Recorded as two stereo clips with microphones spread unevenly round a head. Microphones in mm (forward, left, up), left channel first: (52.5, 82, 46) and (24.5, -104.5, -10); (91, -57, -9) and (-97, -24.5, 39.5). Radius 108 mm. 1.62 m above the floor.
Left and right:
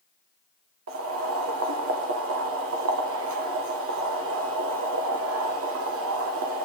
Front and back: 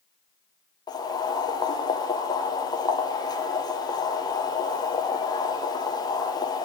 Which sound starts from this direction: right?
Boiling, at 0.9 s.